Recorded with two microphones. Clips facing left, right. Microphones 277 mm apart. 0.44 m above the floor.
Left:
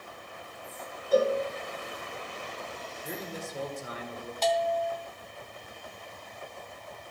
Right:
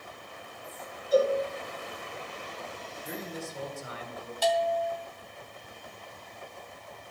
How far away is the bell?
About 0.8 m.